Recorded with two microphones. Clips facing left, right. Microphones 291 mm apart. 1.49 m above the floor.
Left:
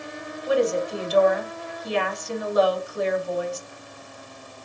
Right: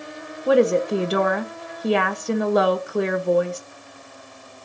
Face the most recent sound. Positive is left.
turn(degrees=-70)  # may be behind; listen again after turning